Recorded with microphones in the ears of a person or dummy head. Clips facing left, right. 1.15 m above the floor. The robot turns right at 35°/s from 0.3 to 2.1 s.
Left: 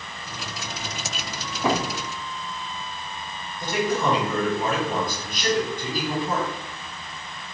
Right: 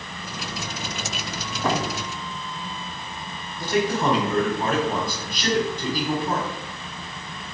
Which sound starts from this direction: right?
A man speaking, at 3.6 s.